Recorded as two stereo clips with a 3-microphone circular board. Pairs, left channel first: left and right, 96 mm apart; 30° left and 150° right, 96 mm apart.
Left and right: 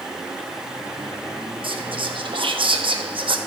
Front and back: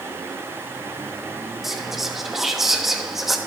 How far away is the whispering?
About 1.0 m.